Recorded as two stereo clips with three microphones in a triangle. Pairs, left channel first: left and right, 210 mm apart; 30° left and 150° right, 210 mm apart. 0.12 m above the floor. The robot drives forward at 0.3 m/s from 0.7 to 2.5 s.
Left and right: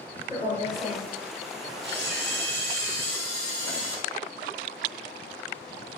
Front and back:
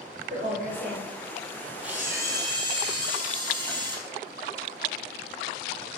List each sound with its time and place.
0.3 s a woman speaking: 165° right, 1.7 m
1.8 s a camera shutter: 65° right, 0.8 m; by 4.0 s 80° right, 0.7 m